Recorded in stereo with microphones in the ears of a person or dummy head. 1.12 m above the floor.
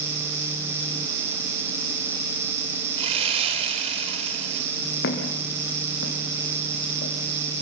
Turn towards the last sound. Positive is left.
turn(degrees=45)  # may be behind; listen again after turning